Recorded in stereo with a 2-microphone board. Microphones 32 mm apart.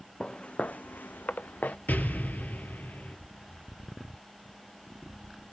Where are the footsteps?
25° left (ahead or behind), 0.8 m; by 1.8 s 60° left (ahead or behind), 0.9 m.